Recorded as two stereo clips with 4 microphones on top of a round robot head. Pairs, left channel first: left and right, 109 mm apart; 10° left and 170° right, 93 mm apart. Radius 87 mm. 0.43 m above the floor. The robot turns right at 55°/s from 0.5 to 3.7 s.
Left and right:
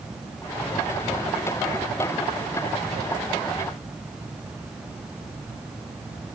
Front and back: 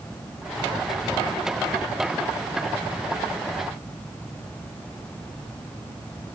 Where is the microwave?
No microwave in this recording.